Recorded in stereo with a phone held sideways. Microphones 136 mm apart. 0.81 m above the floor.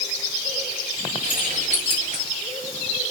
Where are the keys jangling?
85° right, 9.5 m; by 2.2 s 90° right, 9.5 m.